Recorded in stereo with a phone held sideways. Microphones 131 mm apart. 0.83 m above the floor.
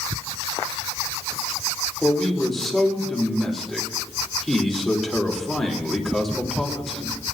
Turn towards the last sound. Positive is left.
turn(degrees=0)  # may be behind; listen again after turning